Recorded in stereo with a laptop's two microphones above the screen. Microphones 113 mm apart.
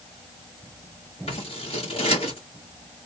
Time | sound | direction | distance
1.3 | scissors | 55° left (ahead or behind) | 2.5 m